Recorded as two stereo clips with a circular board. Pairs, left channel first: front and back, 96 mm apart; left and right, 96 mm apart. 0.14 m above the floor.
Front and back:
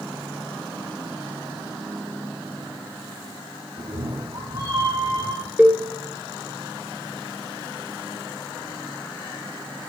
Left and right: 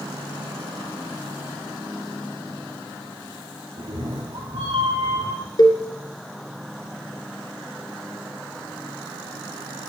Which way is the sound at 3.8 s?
140° right.